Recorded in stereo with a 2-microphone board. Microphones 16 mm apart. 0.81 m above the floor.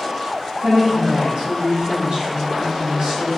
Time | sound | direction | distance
0.6 | a woman speaking | 50° right (ahead or behind) | 1.6 m